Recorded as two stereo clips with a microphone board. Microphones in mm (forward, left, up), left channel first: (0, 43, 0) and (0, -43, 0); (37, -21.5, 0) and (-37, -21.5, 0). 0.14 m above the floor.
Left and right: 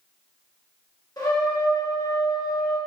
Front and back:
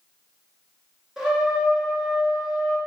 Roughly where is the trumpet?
Left.